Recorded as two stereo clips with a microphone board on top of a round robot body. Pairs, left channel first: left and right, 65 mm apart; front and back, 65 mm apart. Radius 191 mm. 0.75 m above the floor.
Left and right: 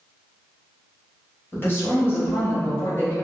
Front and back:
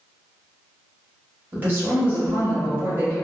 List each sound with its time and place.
1.5 s a woman speaking: 130° left, 1.4 m